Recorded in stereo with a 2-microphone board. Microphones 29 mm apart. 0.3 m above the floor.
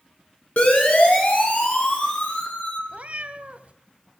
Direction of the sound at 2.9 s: 60° right (ahead or behind).